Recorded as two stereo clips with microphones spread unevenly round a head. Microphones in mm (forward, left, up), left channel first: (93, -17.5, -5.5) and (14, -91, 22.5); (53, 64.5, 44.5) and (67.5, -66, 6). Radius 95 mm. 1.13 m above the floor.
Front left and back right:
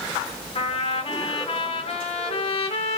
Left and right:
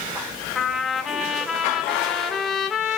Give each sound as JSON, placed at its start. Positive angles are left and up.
{"t": 0.6, "sound": "a trumpet", "azimuth_deg": 25, "distance_m": 0.8}